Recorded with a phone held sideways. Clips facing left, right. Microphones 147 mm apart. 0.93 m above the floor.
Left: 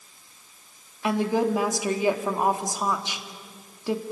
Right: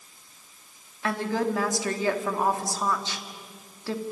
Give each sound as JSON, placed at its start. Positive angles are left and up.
{"t": 1.0, "sound": "a woman speaking", "side_deg": 15, "distance_m": 1.9}